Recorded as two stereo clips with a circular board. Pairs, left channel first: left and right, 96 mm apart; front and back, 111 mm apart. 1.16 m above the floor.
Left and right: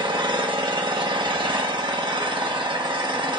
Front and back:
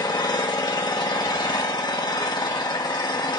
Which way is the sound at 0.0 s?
50° right.